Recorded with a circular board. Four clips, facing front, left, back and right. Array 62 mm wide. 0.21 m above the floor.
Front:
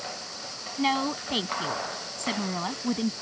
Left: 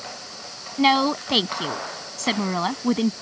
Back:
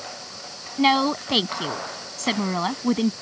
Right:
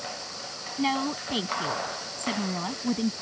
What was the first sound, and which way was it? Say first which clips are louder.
A woman speaking: left 8 dB, back 7 dB; 130° left.